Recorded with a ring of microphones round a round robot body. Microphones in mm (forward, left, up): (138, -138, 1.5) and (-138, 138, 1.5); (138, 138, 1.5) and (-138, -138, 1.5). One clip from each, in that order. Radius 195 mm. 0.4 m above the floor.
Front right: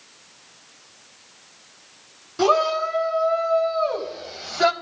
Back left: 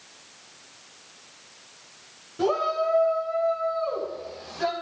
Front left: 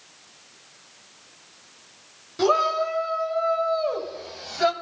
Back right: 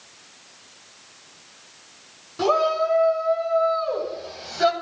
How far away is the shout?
About 4 m.